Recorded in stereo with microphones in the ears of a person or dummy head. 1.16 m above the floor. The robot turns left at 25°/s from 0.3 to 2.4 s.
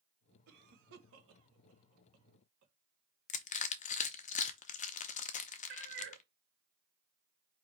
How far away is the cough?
About 1.0 m.